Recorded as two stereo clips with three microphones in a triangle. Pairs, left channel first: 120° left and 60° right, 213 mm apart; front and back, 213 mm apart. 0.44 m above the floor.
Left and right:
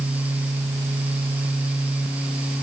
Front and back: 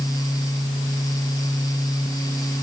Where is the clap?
No clap in this recording.